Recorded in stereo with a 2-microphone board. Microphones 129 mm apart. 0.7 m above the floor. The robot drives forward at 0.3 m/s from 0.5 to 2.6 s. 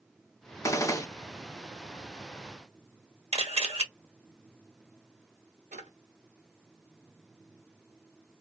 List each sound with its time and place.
0.6 s a gunshot: 25° left (ahead or behind), 0.5 m
3.3 s a camera shutter: 50° right (ahead or behind), 1.1 m
5.7 s a drawer: 75° right (ahead or behind), 1.0 m